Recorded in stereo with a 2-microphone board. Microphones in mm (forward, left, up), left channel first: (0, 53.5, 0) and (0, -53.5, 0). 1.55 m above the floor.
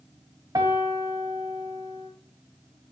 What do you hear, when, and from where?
0.6 s a piano: 40° right (ahead or behind), 1.7 m